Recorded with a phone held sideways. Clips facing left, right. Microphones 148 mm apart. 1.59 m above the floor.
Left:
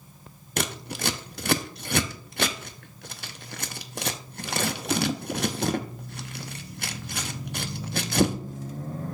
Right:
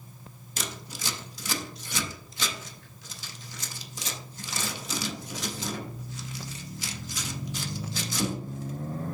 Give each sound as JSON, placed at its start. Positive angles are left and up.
{"t": 0.6, "sound": "scissors", "side_deg": 65, "distance_m": 0.6}